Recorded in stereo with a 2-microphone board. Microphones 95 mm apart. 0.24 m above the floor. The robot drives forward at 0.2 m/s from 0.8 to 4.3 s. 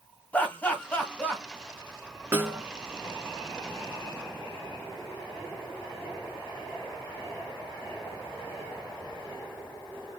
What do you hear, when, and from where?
0.3 s laughter: 15° left (ahead or behind), 1.6 m
2.3 s a snare drum: 25° right (ahead or behind), 1.1 m